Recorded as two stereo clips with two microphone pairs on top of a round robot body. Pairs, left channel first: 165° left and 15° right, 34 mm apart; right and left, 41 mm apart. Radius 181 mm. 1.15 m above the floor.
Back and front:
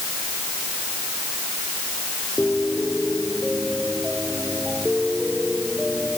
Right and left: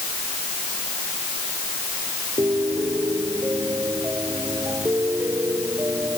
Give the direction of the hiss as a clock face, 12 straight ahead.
I don't hear a hiss.